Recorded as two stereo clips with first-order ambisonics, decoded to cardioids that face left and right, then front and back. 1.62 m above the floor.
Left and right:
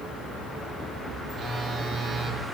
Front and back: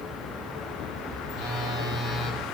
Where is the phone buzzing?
25° right, 1.3 m.